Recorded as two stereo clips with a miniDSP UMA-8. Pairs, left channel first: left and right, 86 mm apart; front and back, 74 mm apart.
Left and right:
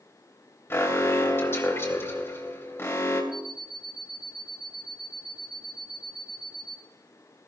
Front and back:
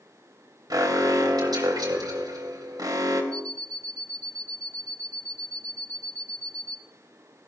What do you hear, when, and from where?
0.7 s an alarm: 150° left, 3 m
3.3 s an alarm clock: 80° right, 4 m